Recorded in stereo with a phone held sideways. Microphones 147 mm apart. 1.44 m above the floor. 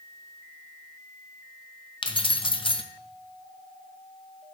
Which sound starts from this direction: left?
Keys jangling, at 2.0 s.